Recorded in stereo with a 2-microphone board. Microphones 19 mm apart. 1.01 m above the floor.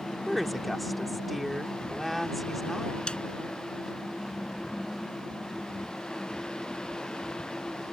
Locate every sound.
0.3 s a woman speaking: centre (ahead or behind)
3.1 s a snare drum: 65° left (ahead or behind)